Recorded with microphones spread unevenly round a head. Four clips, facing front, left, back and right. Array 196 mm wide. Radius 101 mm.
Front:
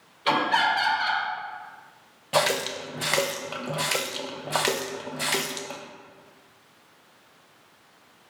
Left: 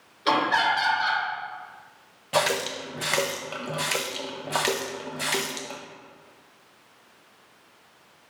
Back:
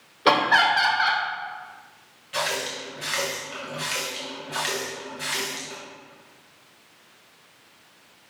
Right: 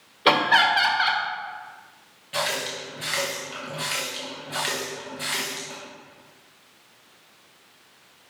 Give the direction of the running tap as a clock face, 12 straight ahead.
11 o'clock.